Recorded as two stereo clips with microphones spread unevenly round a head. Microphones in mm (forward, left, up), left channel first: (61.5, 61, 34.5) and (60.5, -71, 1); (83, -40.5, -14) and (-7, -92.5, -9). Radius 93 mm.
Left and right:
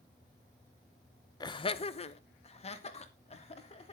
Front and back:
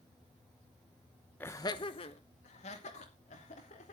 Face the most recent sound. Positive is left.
turn(degrees=45)